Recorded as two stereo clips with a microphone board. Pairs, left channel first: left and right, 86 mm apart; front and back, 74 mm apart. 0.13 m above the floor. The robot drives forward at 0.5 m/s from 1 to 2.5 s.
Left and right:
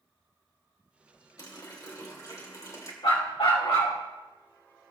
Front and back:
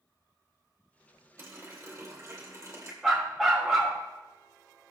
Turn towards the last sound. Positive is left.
turn(degrees=95)